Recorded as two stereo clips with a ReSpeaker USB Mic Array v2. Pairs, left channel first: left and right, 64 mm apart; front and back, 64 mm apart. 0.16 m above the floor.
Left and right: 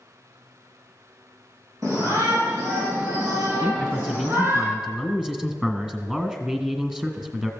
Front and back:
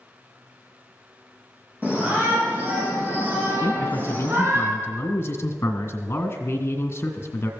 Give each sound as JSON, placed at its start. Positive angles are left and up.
{"t": 1.8, "sound": "a shout", "azimuth_deg": -115, "distance_m": 7.5}
{"t": 3.6, "sound": "a man speaking", "azimuth_deg": -15, "distance_m": 1.8}